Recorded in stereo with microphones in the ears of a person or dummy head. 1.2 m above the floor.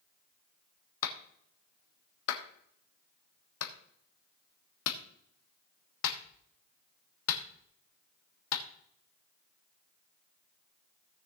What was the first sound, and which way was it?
A clap, 75° left (ahead or behind).